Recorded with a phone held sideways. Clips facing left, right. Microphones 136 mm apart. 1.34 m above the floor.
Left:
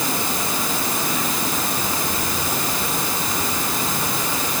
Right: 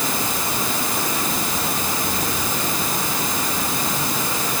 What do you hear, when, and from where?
Only background noise.